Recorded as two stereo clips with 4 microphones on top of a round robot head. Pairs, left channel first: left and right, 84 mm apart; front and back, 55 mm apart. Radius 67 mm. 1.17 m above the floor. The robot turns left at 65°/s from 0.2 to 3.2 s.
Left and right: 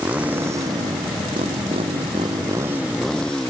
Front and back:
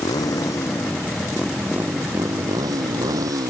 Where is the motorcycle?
15° right; by 3.5 s 175° left.